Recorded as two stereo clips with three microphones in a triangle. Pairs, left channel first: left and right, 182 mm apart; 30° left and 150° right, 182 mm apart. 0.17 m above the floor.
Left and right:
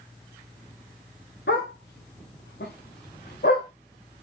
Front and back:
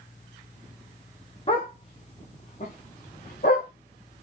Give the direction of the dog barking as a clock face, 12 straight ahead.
9 o'clock.